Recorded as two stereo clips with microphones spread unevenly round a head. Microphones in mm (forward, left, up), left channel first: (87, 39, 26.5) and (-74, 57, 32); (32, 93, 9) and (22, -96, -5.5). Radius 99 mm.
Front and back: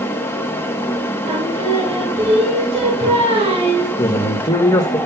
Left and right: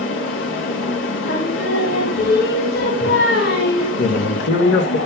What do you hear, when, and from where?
0.0 s a fan: 70° left, 1.1 m
1.2 s singing: 125° left, 2 m
4.0 s a man speaking: 60° left, 1.1 m